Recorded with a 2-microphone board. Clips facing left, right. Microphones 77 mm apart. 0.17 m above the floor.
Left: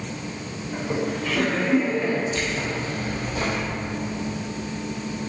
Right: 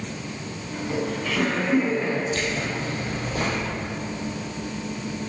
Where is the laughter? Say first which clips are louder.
Left 1 dB; 25° left (ahead or behind), 1.1 m; by 2.2 s 30° right (ahead or behind), 1.5 m.